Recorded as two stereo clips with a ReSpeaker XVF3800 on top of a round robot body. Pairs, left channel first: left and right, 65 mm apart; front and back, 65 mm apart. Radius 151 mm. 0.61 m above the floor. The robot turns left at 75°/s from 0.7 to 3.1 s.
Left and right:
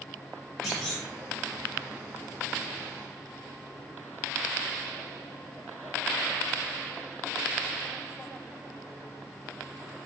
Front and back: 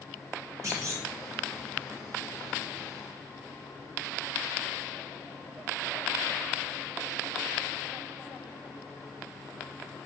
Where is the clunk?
Straight behind, 1.4 m; by 1.0 s 155° left, 1.4 m.